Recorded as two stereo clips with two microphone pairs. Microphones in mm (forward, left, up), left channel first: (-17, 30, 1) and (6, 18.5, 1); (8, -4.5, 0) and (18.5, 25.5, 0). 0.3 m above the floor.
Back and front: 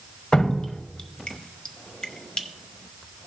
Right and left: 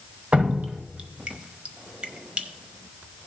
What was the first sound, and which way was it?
Dripping, 115° left.